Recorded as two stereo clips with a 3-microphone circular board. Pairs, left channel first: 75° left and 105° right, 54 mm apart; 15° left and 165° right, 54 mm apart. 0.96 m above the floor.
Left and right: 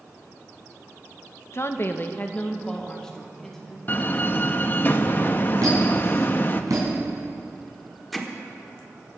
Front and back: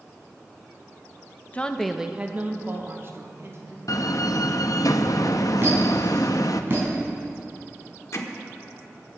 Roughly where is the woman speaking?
Left.